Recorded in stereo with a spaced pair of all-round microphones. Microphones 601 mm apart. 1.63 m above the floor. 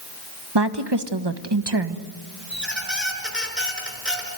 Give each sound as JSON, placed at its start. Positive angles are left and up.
{"t": 0.6, "sound": "a woman speaking", "side_deg": -45, "distance_m": 1.5}
{"t": 2.5, "sound": "a squeak", "side_deg": 0, "distance_m": 4.5}